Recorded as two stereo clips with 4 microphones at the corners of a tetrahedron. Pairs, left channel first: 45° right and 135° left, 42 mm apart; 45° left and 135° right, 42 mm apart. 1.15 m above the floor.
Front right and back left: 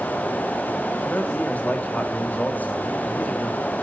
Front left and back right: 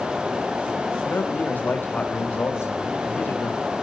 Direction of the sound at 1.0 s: 5° left.